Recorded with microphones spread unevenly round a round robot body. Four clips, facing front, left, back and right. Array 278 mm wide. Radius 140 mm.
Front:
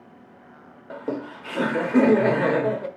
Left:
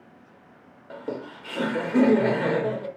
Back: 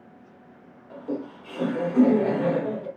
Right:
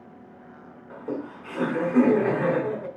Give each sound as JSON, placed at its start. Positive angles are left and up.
{"t": 0.9, "sound": "laughter", "azimuth_deg": 10, "distance_m": 1.6}